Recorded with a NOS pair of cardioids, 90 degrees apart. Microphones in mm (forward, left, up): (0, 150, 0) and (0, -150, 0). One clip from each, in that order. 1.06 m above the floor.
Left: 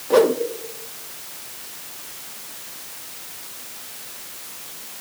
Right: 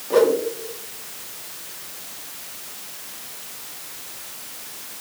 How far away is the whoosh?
About 1.4 m.